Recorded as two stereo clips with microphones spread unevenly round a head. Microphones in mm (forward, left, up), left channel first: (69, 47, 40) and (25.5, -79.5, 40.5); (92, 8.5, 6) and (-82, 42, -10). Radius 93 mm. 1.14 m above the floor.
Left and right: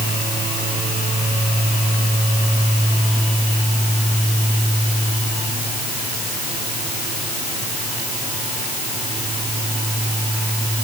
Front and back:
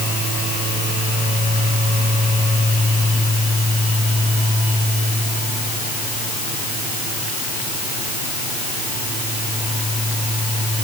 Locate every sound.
Only background noise.